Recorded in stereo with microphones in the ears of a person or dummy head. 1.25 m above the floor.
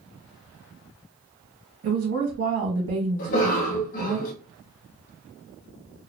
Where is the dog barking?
No dog barking in this recording.